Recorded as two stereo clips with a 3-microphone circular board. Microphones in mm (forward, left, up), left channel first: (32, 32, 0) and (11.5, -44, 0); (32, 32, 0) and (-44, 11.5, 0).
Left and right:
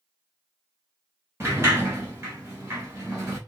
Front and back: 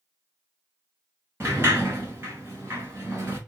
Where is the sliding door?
130° right, 1.1 m.